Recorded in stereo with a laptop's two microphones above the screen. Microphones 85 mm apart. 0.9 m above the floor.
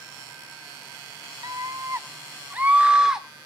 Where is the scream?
50° right (ahead or behind), 1.4 m; by 3.3 s 5° right (ahead or behind), 2.5 m.